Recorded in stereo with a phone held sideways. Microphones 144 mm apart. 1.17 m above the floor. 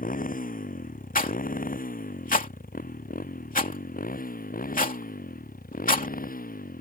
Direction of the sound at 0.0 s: 75° left (ahead or behind).